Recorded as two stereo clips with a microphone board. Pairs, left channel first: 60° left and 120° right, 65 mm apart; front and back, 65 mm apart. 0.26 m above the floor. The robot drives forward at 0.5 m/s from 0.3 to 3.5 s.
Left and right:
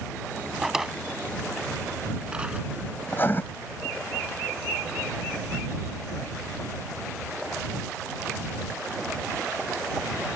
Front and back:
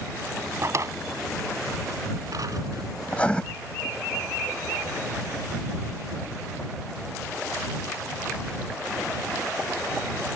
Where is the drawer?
155° left; by 2.9 s 170° left.